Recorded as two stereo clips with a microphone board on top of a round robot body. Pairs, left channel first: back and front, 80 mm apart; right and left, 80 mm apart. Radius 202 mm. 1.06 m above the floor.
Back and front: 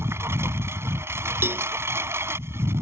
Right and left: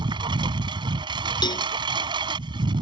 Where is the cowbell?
60° right.